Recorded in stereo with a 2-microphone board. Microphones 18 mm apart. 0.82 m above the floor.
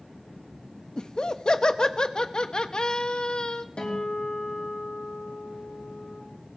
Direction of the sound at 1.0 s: 50° left (ahead or behind).